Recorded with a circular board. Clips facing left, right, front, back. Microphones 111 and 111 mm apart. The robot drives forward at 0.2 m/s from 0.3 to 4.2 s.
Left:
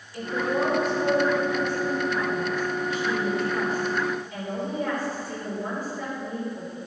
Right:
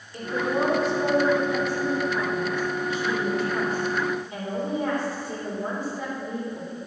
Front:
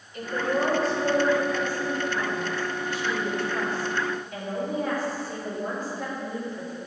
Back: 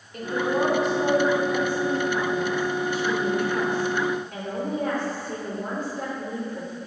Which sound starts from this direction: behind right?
A woman speaking, at 0.1 s.